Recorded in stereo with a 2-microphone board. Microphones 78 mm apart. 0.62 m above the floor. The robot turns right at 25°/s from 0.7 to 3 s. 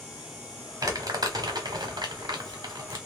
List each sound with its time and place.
0.8 s crumpling: 45° right (ahead or behind), 1.3 m; by 3.0 s 65° right (ahead or behind), 1.3 m